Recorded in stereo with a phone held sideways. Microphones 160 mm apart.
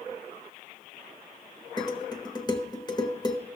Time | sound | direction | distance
1.8 | dishes clattering | 25° left (ahead or behind) | 0.9 m